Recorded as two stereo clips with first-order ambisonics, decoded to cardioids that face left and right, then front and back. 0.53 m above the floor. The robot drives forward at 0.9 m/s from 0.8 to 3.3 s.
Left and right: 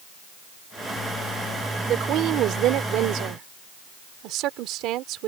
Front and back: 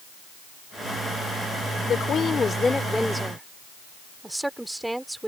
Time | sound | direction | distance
1.9 | a woman speaking | 50° right | ?